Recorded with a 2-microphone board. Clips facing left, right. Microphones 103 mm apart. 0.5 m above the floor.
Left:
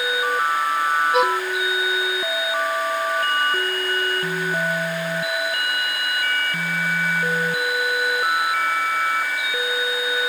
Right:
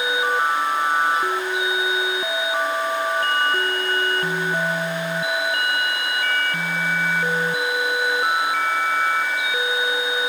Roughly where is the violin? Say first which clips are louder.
Left 4 dB; left.